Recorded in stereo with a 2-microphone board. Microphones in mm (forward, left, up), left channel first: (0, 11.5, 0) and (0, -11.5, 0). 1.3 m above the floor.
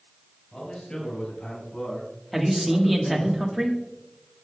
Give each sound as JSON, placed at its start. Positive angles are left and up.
{"t": 0.5, "sound": "a man speaking", "side_deg": 40, "distance_m": 4.0}
{"t": 2.3, "sound": "a man speaking", "side_deg": -5, "distance_m": 1.6}